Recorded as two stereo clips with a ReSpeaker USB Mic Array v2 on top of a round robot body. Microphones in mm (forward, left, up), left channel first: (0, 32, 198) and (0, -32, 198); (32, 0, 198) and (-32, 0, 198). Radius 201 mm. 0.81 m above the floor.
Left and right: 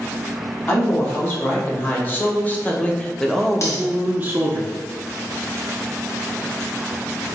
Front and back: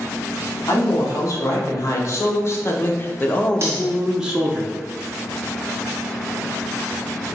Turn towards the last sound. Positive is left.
turn(degrees=135)